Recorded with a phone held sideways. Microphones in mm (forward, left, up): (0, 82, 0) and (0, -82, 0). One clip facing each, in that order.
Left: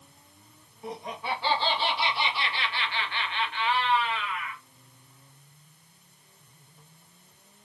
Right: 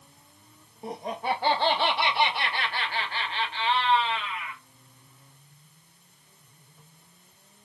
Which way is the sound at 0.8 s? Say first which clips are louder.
Right 4 dB; 35° right (ahead or behind).